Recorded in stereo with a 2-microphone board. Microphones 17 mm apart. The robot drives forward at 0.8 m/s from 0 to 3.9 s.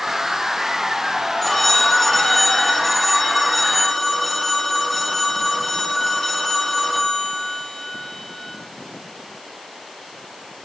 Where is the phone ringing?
10° left (ahead or behind), 2 m; by 8.6 s 5° left (ahead or behind), 4 m.